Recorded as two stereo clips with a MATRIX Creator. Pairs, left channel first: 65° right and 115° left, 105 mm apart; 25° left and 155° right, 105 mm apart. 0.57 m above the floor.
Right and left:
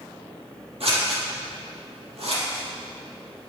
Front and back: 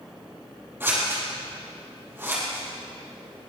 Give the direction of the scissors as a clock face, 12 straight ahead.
8 o'clock.